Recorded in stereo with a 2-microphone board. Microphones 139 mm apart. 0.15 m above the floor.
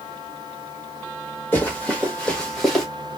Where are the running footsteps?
15° left (ahead or behind), 2.5 m; by 2.9 s centre (ahead or behind), 1.9 m.